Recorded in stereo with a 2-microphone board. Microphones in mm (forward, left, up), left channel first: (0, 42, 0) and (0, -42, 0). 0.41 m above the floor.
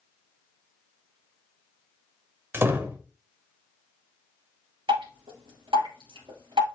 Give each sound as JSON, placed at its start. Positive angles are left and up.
{"t": 2.5, "sound": "a door slam", "side_deg": -25, "distance_m": 1.1}
{"t": 4.9, "sound": "dripping", "side_deg": -80, "distance_m": 4.0}